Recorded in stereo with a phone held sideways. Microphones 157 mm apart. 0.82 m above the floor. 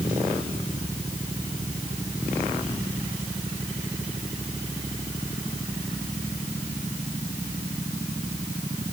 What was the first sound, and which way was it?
Only background noise.